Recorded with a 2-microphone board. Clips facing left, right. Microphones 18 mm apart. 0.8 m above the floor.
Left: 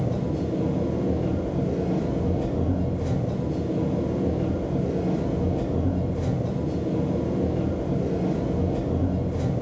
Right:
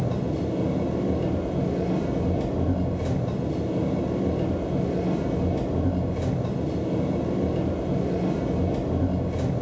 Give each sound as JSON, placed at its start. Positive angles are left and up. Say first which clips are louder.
{"t": 0.0, "sound": "an engine running", "louder": "even", "side_deg": -70, "distance_m": 0.9}